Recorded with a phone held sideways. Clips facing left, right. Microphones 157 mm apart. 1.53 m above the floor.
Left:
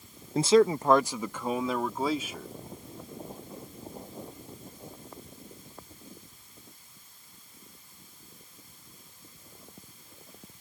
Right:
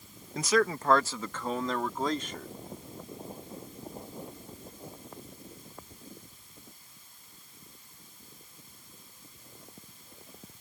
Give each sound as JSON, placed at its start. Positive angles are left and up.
{"t": 0.3, "sound": "a man speaking", "side_deg": 30}